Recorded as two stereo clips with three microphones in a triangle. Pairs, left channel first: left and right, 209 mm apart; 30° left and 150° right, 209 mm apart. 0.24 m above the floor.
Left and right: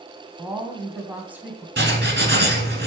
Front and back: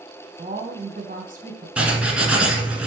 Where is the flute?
I don't hear a flute.